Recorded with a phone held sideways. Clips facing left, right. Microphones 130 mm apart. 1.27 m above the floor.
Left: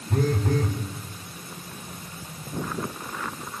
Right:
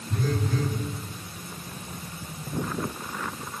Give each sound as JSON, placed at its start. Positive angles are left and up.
{"t": 0.1, "sound": "a phone buzzing", "side_deg": 55, "distance_m": 5.5}